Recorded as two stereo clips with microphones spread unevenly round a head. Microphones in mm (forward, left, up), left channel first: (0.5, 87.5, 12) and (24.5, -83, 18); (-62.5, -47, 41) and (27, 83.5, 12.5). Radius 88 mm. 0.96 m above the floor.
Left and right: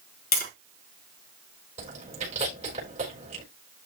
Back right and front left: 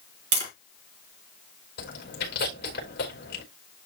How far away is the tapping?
About 4.5 m.